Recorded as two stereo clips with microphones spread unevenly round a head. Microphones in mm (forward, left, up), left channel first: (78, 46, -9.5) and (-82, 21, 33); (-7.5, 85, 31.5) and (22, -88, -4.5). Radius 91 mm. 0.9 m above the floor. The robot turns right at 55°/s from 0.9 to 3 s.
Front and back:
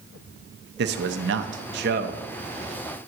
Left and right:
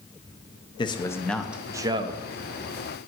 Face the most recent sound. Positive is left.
turn(degrees=-75)